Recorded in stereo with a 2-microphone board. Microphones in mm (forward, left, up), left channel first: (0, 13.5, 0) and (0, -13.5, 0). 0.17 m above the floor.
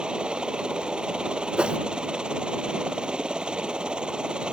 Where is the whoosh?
40° right (ahead or behind).